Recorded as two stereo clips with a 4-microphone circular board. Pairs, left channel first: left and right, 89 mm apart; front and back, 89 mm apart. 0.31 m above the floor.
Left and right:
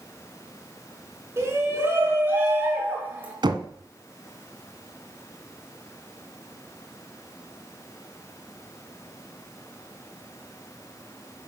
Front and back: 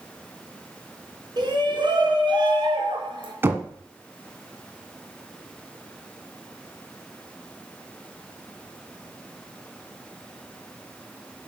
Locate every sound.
1.4 s a shout: 150° right, 3 m; by 3.3 s 160° right, 4 m
3.4 s knocking: 115° right, 1.6 m